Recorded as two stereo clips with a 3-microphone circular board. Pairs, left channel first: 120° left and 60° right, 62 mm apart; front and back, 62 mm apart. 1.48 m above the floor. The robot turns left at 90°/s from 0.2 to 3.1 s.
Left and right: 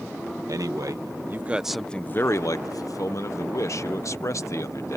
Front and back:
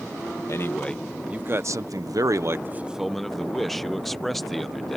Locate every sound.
0.5 s a man speaking: 35° right; by 5.0 s 90° left